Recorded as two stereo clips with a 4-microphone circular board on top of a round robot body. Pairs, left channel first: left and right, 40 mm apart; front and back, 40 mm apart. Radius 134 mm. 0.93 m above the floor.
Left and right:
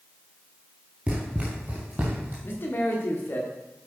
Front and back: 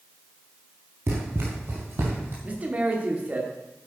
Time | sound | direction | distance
1.1 | running footsteps | 160° right | 1.4 m
2.4 | a man speaking | 130° left | 2 m